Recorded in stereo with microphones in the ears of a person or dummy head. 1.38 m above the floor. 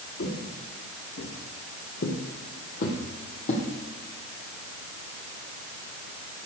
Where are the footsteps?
60° left (ahead or behind), 3 m; by 3.6 s 40° left (ahead or behind), 3 m.